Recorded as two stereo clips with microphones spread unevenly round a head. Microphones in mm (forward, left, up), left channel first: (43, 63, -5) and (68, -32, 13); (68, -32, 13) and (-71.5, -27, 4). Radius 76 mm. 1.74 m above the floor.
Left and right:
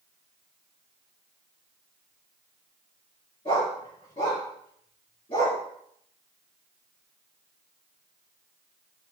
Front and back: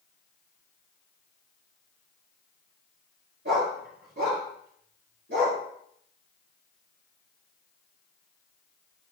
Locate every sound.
3.5 s a dog barking: 160° left, 6 m